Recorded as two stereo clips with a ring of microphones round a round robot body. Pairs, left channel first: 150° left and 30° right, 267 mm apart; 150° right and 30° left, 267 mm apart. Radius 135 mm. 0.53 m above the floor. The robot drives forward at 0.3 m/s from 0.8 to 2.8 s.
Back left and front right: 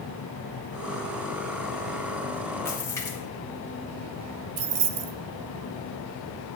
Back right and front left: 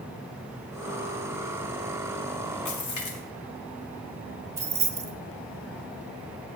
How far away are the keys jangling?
About 1.0 m.